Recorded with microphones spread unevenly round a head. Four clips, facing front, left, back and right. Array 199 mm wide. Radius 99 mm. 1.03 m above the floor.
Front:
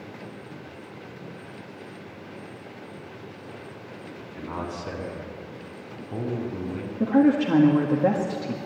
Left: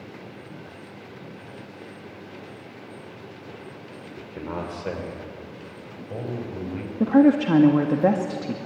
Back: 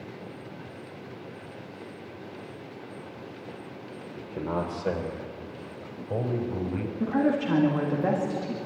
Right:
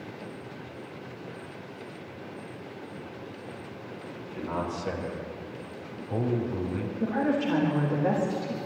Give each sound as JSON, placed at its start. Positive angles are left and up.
{"t": 4.2, "sound": "a man speaking", "azimuth_deg": 145, "distance_m": 2.5}
{"t": 7.0, "sound": "a woman speaking", "azimuth_deg": 75, "distance_m": 2.0}